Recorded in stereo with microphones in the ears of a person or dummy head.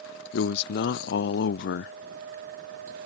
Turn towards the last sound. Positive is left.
turn(degrees=65)  # may be behind; listen again after turning